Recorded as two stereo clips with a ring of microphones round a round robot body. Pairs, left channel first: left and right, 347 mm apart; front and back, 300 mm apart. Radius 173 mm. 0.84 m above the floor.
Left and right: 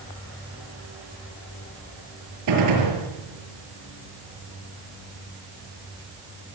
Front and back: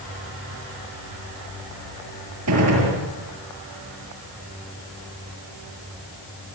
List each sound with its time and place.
2.5 s a gunshot: 130° right, 7 m